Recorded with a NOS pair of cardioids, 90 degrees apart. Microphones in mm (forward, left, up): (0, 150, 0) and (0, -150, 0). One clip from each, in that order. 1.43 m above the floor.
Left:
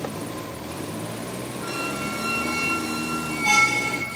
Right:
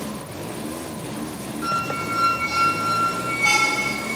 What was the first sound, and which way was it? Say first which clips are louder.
A squeak: right 5 dB; 60° right.